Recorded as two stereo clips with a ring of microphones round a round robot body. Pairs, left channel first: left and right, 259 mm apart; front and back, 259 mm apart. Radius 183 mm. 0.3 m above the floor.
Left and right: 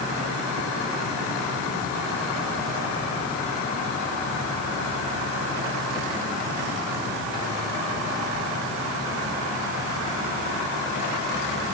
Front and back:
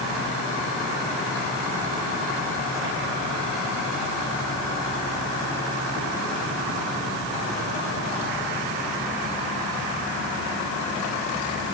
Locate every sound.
Only background noise.